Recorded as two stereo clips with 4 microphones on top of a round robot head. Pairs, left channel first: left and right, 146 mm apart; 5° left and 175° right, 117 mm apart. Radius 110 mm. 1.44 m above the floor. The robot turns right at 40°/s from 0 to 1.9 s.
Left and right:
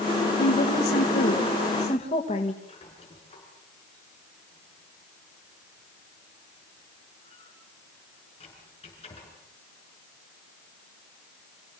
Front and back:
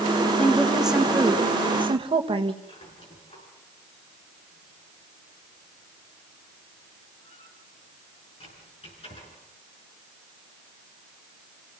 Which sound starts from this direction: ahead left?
A squeak, at 2.6 s.